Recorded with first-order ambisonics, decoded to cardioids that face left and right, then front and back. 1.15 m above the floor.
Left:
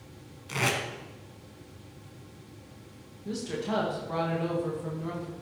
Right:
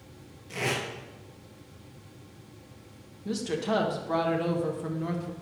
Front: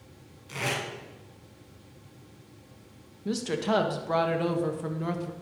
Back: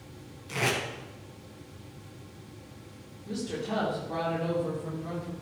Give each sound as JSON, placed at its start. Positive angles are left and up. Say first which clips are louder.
{"t": 0.5, "sound": "tape being pulled", "louder": "left 2 dB, back 2 dB", "azimuth_deg": 100, "distance_m": 1.7}
{"t": 3.2, "sound": "a woman speaking", "louder": "right 3 dB, front 6 dB", "azimuth_deg": -15, "distance_m": 1.2}